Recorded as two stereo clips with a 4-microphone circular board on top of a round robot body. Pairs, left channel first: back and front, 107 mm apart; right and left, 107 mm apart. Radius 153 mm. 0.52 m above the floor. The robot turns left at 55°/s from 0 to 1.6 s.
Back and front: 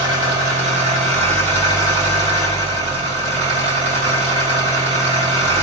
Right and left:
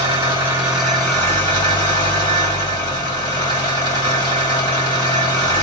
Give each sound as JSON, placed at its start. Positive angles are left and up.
{"t": 0.0, "sound": "an engine running", "azimuth_deg": 50, "distance_m": 2.0}